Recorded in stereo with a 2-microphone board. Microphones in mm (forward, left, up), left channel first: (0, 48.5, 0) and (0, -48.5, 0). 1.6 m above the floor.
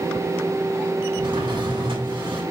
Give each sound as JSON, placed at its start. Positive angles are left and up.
{"t": 1.2, "sound": "a drawer", "side_deg": -65, "distance_m": 5.5}